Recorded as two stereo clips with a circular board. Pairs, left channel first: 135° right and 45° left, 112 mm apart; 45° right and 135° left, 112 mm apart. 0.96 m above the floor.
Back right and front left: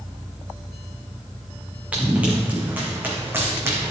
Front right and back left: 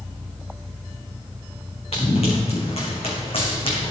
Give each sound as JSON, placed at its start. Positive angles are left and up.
{"t": 1.9, "sound": "running footsteps", "azimuth_deg": -30, "distance_m": 3.0}